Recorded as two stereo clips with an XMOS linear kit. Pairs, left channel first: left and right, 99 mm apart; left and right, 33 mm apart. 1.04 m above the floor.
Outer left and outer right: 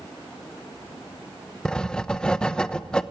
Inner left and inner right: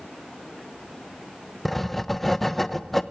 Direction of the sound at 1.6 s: 10° left (ahead or behind).